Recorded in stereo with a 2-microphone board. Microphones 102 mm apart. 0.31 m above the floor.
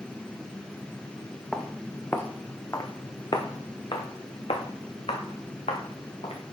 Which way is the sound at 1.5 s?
10° left (ahead or behind).